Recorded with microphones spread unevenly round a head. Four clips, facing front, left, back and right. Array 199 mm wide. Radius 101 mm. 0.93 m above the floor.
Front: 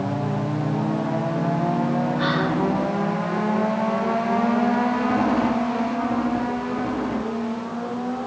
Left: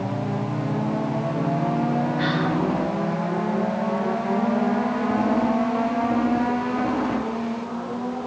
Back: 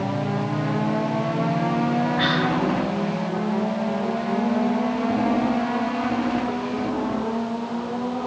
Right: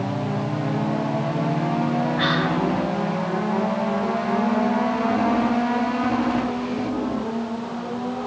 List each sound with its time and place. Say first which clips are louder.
2.2 s whispering: right 1 dB, even; 175° right, 9 m